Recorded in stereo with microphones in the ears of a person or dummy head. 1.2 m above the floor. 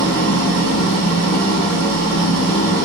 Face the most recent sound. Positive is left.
turn(degrees=-60)  # may be behind; listen again after turning